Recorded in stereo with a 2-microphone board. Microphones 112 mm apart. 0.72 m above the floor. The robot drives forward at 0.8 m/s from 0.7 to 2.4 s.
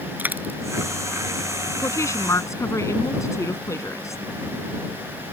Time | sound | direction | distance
0.2 | a dropped coin | 15° right (ahead or behind) | ?
1.8 | a woman speaking | 25° left (ahead or behind) | ?